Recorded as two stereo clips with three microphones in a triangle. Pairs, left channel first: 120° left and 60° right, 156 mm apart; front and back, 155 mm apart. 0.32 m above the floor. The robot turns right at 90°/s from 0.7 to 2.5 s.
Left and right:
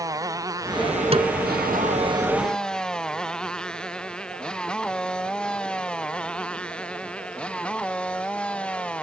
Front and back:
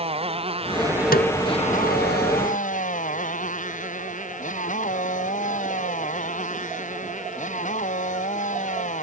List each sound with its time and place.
0.0 s a motorcycle: 130° right; by 9.0 s 35° left
1.1 s a snare drum: 10° right; by 1.3 s 5° left